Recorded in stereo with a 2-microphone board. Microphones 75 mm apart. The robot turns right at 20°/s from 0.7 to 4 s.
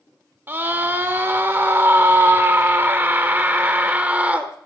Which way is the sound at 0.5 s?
110° right.